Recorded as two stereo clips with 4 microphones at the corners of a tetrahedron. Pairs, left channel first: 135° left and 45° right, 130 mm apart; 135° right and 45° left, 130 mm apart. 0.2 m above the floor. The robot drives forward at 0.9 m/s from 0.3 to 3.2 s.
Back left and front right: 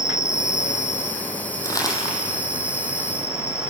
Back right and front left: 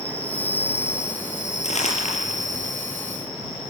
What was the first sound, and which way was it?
An insect, 145° left.